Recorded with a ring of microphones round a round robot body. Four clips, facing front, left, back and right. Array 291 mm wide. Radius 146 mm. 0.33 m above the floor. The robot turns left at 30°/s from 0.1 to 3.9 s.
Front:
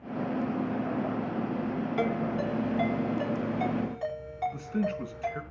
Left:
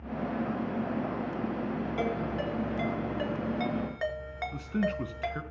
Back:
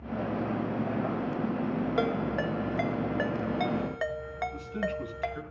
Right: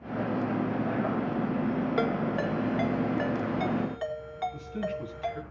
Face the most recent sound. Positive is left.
turn(degrees=70)